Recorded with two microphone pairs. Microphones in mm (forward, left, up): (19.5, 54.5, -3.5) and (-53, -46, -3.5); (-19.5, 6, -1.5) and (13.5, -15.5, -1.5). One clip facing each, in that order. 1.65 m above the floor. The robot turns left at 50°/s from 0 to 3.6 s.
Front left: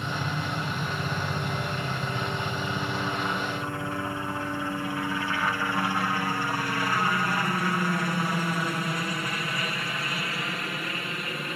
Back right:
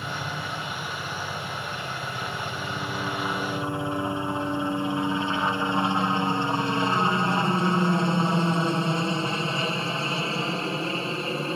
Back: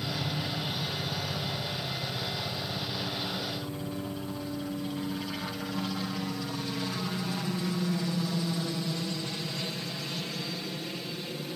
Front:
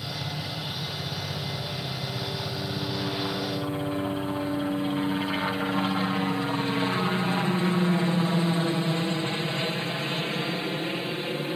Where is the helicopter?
125° left; by 11.6 s 75° right.